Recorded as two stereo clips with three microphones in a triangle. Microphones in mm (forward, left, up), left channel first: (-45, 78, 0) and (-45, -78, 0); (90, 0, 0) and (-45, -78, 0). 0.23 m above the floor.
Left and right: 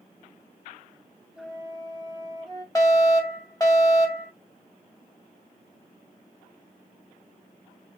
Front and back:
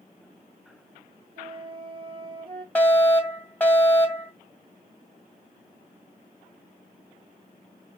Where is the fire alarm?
90° left, 2 m.